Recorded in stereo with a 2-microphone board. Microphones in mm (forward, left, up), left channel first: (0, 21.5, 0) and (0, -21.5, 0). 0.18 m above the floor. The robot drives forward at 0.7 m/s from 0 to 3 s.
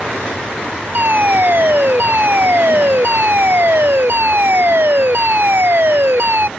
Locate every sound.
0.9 s a fire alarm: 50° right (ahead or behind); by 6.5 s 60° right (ahead or behind)